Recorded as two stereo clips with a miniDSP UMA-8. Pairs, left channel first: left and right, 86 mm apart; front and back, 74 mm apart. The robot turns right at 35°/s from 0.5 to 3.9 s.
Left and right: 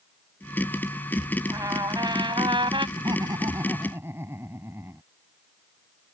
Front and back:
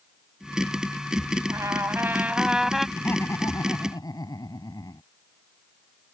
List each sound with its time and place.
1.5 s a trumpet: 135° right; by 2.9 s 90° right
3.0 s laughter: 60° right; by 5.0 s 30° right